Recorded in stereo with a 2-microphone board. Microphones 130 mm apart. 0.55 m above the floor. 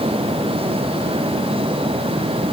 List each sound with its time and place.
Only background noise.